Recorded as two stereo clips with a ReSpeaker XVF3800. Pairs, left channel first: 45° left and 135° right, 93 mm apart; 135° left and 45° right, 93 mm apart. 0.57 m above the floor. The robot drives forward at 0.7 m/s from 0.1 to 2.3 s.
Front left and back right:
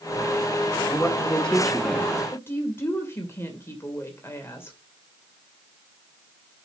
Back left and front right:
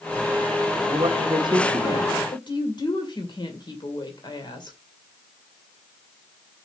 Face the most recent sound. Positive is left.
turn(degrees=105)